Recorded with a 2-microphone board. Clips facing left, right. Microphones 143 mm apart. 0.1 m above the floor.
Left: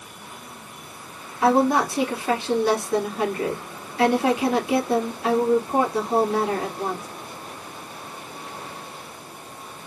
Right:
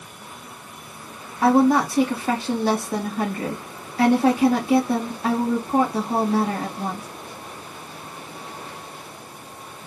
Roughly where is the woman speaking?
Right.